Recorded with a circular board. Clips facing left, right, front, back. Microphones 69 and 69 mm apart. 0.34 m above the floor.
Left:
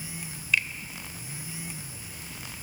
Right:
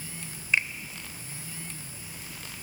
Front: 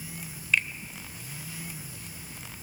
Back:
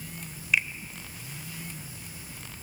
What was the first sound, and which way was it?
A finger snap, 110° right.